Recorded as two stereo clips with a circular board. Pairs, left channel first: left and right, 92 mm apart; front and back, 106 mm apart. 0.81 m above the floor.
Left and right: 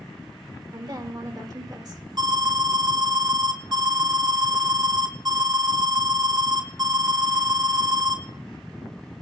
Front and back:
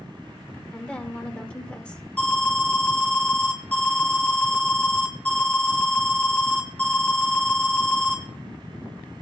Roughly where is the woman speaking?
Right.